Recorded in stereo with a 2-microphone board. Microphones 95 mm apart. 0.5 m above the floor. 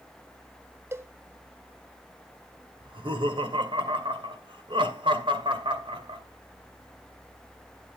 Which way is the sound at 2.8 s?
60° right (ahead or behind).